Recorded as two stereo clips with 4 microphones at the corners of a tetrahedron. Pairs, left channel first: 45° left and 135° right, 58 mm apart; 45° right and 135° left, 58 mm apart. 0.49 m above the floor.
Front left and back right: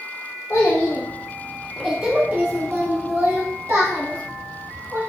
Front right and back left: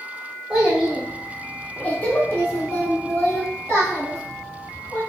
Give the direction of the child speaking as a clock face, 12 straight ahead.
10 o'clock.